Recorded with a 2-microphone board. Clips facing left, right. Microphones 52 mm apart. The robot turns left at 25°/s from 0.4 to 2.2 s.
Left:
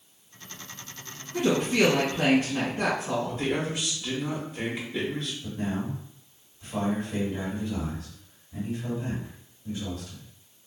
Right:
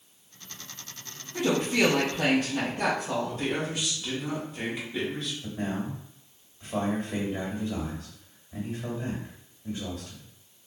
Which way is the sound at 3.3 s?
Centre (ahead or behind).